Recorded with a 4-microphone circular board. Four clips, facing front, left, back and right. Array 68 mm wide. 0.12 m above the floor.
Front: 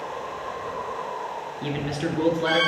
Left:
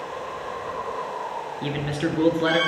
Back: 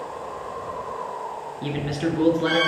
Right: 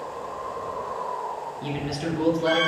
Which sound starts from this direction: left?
A man speaking, at 1.6 s.